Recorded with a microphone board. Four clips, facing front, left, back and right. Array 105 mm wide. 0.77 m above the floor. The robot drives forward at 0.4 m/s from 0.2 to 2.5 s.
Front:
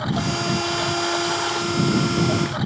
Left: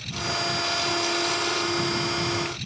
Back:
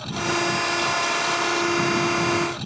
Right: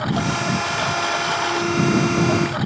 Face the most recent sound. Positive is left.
turn(degrees=-65)